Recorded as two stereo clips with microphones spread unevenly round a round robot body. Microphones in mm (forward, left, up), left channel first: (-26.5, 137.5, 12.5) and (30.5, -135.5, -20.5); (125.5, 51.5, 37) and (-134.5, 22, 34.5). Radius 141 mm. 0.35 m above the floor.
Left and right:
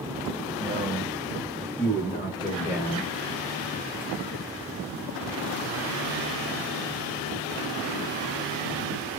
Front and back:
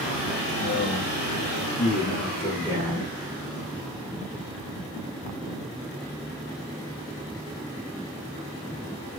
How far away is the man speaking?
About 1.4 m.